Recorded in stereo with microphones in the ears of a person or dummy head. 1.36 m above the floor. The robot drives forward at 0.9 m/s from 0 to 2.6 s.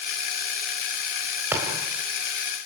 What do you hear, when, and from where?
1.5 s a thud: 15° right (ahead or behind), 3.5 m